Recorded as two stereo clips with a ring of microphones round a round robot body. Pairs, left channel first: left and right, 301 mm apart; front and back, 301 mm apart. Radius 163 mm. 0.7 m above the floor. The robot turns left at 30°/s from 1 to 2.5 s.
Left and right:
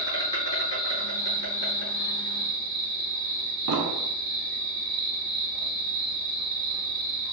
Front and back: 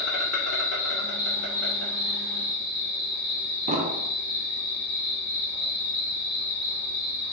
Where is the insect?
75° left, 1.8 m; by 7.3 s 30° left, 1.8 m.